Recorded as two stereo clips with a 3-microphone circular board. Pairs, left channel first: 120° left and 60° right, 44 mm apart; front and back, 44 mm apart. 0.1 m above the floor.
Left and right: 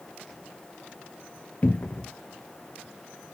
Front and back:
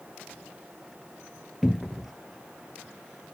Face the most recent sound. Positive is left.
turn(degrees=100)